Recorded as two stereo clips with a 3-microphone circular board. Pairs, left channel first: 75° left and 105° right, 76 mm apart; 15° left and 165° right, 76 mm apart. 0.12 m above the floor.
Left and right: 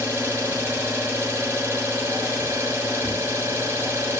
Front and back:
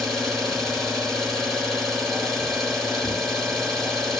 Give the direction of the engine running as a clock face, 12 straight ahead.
3 o'clock.